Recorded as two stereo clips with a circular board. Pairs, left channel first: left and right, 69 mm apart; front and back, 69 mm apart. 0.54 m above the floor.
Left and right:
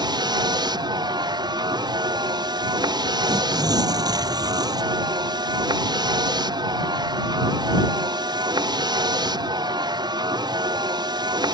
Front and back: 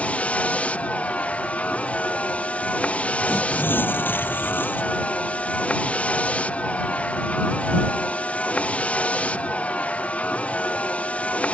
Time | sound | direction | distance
0.0 | a vehicle | 75° right | ?
3.2 | tearing paper | 65° right | ?